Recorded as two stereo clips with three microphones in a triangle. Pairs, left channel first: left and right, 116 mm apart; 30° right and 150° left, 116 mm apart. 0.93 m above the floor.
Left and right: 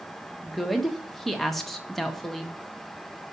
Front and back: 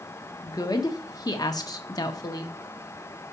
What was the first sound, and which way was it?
A woman speaking, 5° left.